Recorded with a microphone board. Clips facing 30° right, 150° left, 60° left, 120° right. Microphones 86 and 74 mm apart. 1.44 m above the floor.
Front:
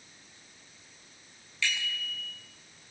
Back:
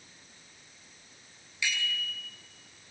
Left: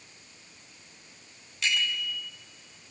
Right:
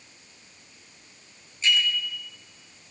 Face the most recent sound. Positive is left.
turn(degrees=75)